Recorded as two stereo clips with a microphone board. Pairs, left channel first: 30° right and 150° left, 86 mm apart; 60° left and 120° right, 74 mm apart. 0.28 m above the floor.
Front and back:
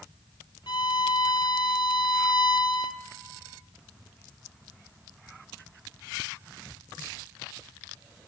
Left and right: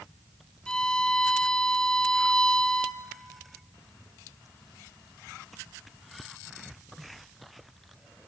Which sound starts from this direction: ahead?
A violin, at 0.7 s.